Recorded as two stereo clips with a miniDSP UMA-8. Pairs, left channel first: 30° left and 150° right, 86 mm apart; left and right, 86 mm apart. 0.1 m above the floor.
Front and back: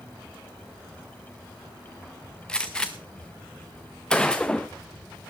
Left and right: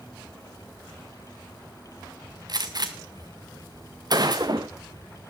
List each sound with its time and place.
2.5 s a gunshot: 50° right, 1.7 m